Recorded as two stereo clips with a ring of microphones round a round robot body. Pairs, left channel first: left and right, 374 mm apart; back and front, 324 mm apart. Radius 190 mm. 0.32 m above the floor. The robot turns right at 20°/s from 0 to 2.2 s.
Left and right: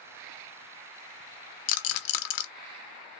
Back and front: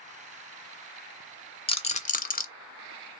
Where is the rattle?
105° left, 0.7 m; by 2.5 s 115° left, 0.7 m.